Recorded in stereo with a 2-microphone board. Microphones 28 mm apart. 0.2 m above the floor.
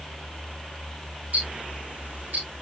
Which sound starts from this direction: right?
Ticking, at 1.3 s.